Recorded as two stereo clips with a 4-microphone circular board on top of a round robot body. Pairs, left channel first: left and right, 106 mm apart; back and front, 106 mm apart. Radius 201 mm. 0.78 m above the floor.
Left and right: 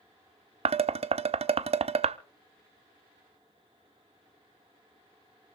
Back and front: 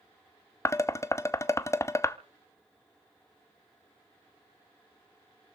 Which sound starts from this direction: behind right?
Dishes clattering, at 0.7 s.